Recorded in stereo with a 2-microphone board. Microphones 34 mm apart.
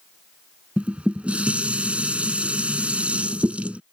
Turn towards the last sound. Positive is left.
turn(degrees=-40)  # may be behind; listen again after turning